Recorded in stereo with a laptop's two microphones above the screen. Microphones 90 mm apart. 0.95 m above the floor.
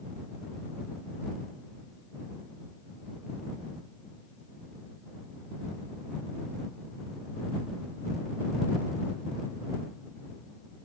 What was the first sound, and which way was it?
Only background noise.